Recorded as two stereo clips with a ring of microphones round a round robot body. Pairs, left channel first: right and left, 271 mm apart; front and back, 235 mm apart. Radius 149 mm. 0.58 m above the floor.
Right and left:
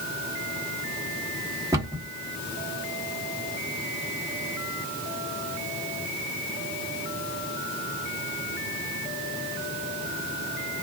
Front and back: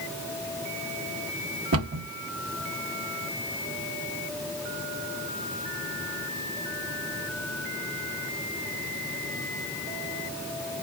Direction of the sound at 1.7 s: 170° left.